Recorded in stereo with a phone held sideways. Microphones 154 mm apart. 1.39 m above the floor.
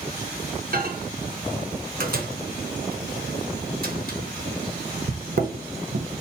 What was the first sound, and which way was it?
A microwave, 65° right (ahead or behind).